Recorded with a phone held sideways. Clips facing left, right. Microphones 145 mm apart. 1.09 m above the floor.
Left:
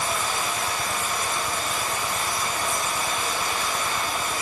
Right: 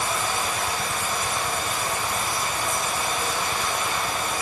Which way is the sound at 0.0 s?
25° right (ahead or behind).